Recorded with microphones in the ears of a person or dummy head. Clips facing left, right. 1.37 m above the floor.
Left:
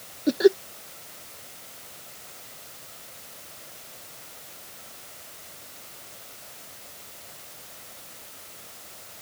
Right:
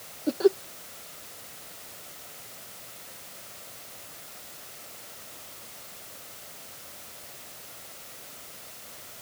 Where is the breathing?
No breathing in this recording.